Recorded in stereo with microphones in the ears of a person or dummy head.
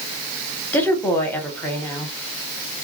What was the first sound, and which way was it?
A woman speaking, 10° left (ahead or behind).